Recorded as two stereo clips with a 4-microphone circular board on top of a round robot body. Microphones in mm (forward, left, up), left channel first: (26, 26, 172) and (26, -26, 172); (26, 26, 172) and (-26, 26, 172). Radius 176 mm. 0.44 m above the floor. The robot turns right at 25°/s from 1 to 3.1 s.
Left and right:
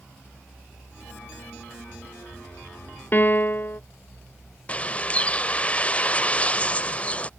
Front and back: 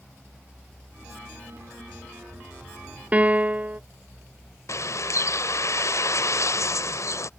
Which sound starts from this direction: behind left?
A piano, at 3.1 s.